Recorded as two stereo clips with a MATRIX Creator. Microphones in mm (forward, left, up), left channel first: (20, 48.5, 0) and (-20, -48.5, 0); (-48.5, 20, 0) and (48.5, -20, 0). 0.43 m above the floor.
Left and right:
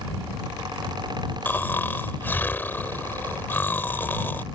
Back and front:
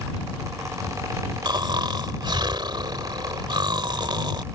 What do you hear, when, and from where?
1.4 s snoring: 5° left